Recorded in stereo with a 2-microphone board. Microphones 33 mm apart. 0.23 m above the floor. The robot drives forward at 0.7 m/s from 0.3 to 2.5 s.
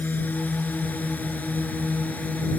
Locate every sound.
0.0 s a drone: 60° left (ahead or behind); by 2.6 s 55° left (ahead or behind)